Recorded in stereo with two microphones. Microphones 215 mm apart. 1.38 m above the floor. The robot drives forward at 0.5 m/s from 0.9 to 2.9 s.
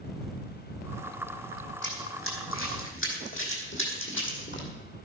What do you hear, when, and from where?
1.8 s running footsteps: 60° left (ahead or behind), 4 m; by 4.7 s 55° left (ahead or behind), 3.5 m